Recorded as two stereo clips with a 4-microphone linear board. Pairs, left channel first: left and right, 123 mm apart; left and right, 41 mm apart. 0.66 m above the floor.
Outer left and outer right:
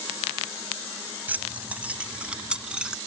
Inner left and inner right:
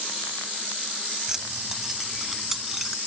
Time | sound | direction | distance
1.3 | keys jangling | 15° right (ahead or behind) | ?